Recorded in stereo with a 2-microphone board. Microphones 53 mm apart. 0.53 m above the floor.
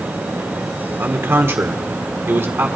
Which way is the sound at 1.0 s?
45° right (ahead or behind).